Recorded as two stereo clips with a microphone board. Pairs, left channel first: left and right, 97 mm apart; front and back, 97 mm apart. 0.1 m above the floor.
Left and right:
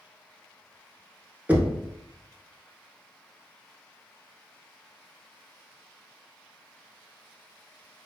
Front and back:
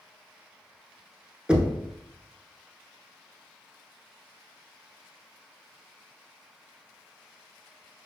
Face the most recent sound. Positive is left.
turn(degrees=-120)